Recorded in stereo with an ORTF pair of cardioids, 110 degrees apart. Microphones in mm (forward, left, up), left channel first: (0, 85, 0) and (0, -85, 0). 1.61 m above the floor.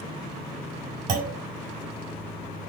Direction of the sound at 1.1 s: 65° right.